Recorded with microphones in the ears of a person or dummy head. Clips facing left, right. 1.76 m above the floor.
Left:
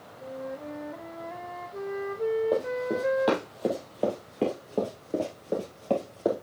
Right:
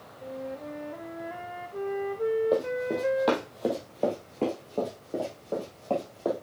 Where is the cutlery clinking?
I don't hear cutlery clinking.